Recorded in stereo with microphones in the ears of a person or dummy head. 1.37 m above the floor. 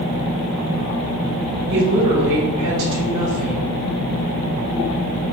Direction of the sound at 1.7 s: 70° right (ahead or behind).